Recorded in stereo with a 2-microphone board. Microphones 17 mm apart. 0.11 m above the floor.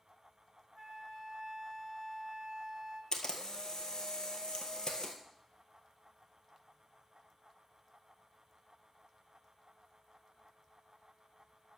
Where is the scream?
I don't hear a scream.